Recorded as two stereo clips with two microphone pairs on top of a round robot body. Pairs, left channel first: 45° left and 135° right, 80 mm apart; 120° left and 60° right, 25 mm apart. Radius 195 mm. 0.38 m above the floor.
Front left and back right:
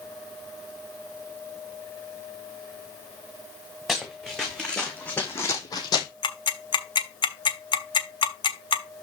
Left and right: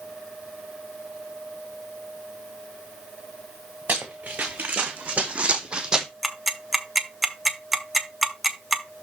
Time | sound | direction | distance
3.9 | running footsteps | 45° right | 2.5 m
6.2 | ticking | 25° left | 1.4 m